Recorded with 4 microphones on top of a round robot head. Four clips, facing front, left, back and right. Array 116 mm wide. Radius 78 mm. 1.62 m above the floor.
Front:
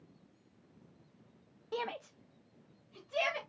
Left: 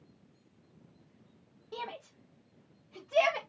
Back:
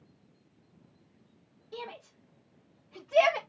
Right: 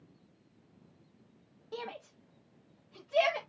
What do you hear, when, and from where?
1.7 s a shout: 5° right, 0.6 m; by 3.4 s 165° left, 0.8 m